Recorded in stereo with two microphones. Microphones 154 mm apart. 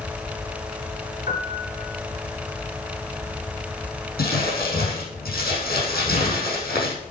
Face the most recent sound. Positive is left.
turn(degrees=80)